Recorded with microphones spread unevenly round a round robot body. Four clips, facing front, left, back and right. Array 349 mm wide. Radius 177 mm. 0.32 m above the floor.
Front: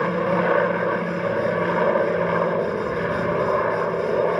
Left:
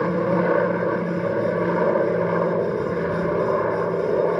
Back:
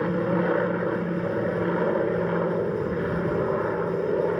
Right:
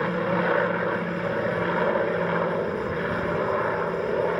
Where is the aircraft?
110° left.